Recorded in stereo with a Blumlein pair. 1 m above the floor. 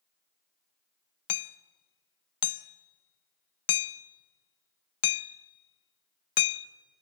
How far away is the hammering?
About 0.5 m.